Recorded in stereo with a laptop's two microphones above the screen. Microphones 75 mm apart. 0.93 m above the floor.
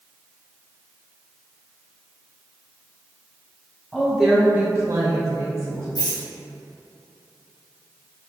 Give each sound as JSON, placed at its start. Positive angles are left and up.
{"t": 3.9, "sound": "a woman speaking", "side_deg": 10, "distance_m": 1.1}
{"t": 6.0, "sound": "a rattle", "side_deg": 65, "distance_m": 1.3}